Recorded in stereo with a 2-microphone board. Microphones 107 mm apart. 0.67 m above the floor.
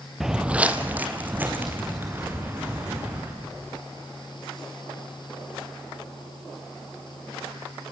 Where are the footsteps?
5° right (ahead or behind), 0.7 m; by 3.3 s 20° right (ahead or behind), 5 m.